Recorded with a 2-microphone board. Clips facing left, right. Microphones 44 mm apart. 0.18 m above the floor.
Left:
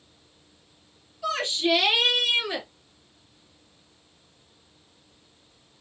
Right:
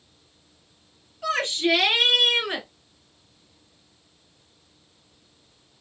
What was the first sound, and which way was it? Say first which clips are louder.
A shout: right 2 dB; 50° right (ahead or behind).